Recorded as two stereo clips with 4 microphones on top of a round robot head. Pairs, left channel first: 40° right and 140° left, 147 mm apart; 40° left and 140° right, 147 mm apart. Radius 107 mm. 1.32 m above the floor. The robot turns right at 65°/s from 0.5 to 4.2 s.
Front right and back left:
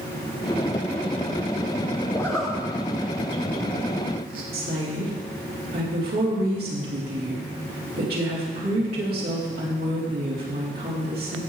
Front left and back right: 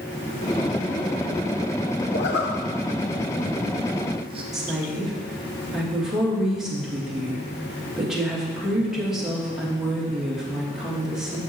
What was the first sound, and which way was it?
A zipper, 30° left.